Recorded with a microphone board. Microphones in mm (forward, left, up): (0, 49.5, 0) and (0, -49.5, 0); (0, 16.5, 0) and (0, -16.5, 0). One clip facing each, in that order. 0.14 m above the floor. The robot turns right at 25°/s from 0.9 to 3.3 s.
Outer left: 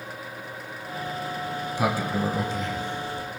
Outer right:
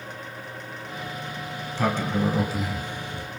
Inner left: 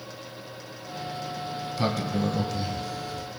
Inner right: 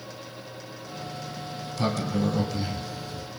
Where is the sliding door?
165° left, 2.5 m; by 3.3 s 155° right, 2.5 m.